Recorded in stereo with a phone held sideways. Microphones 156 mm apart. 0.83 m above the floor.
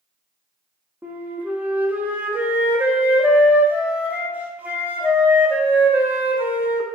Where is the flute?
10° right (ahead or behind), 0.5 m.